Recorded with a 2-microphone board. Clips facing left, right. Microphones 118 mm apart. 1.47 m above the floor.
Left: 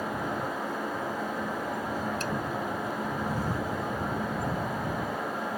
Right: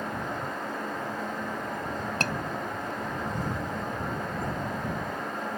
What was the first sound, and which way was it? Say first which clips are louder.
A scream: right 1 dB; 75° right (ahead or behind).